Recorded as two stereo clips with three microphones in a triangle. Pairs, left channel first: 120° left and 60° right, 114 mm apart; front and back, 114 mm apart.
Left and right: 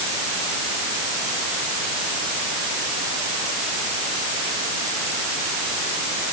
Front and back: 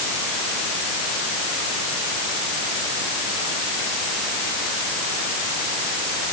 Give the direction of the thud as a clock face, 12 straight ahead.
No thud in this recording.